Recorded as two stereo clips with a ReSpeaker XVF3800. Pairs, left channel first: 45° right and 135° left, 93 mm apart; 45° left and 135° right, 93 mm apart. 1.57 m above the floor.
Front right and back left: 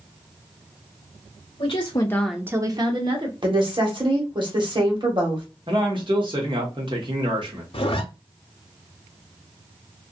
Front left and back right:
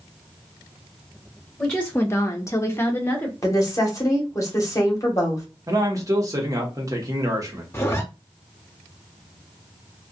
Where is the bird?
No bird in this recording.